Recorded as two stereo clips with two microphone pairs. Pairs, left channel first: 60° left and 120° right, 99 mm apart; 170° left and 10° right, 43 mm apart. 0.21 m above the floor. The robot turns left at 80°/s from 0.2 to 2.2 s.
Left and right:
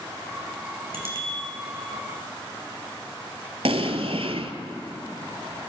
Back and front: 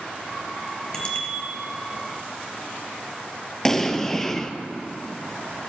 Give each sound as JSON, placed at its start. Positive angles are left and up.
{"t": 0.9, "sound": "a bicycle bell", "azimuth_deg": -125, "distance_m": 2.5}
{"t": 3.6, "sound": "an explosion", "azimuth_deg": -115, "distance_m": 0.9}